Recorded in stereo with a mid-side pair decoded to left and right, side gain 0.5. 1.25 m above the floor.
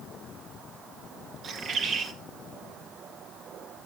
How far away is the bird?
About 1.9 m.